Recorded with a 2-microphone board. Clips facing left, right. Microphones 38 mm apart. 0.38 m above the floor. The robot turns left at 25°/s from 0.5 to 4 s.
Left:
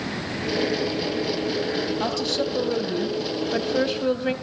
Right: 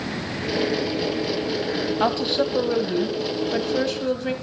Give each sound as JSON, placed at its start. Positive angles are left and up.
{"t": 2.0, "sound": "a woman speaking", "azimuth_deg": -145, "distance_m": 2.0}